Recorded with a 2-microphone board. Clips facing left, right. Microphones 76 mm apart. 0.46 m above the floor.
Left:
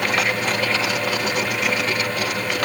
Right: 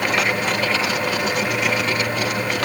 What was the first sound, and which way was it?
Only background noise.